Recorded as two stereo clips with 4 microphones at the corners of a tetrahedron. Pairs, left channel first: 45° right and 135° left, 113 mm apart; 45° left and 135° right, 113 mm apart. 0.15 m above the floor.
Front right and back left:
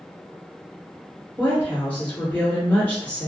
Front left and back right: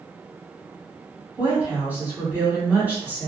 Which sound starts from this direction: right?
A woman speaking, at 1.4 s.